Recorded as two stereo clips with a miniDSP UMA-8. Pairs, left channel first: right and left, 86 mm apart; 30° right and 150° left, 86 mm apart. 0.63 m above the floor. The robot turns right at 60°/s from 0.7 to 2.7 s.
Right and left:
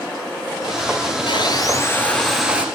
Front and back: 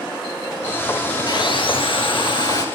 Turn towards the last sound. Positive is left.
turn(degrees=20)